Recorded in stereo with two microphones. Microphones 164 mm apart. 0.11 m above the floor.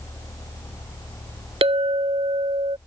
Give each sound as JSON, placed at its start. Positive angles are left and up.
{"t": 1.6, "sound": "a clink", "side_deg": -40}